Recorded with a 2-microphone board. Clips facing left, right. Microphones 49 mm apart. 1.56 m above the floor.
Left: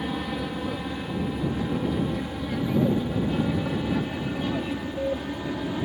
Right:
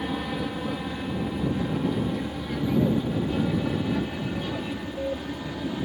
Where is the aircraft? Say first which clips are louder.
Even; centre (ahead or behind); by 5.9 s 10° left (ahead or behind).